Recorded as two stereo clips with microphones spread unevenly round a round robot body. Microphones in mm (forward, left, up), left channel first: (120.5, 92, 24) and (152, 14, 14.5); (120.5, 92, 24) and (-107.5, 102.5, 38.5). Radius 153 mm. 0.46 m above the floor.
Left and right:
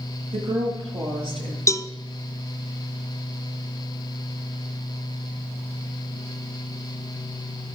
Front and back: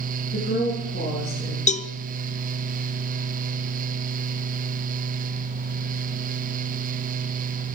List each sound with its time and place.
0.3 s a woman speaking: 70° right, 7 m
1.7 s a cowbell: 60° left, 1.2 m